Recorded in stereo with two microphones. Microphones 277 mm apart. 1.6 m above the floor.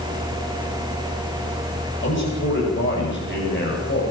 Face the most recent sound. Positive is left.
turn(degrees=40)  # may be behind; listen again after turning